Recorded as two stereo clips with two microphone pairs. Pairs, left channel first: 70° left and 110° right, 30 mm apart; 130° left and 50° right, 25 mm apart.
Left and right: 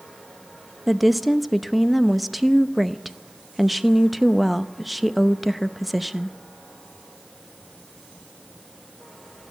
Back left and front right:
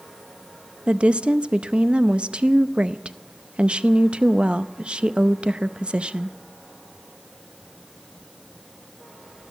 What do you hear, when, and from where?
0.9 s a woman speaking: 20° right, 0.6 m